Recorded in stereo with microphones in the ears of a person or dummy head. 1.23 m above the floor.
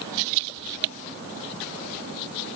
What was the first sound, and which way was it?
Only background noise.